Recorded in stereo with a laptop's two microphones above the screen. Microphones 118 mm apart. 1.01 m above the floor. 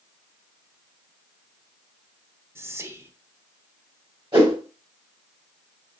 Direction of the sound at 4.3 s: 45° right (ahead or behind).